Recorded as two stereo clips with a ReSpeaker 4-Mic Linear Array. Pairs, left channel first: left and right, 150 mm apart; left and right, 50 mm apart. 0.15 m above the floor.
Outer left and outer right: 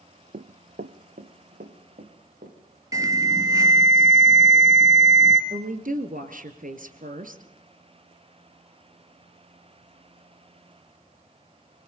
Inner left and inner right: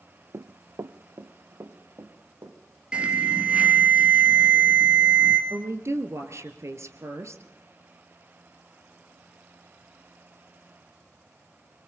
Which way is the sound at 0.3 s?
80° right.